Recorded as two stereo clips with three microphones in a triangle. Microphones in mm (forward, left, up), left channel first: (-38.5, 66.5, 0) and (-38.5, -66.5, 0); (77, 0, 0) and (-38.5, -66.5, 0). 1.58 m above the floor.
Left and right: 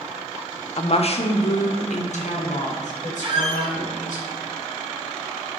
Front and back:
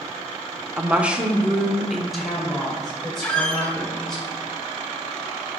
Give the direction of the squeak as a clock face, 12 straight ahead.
2 o'clock.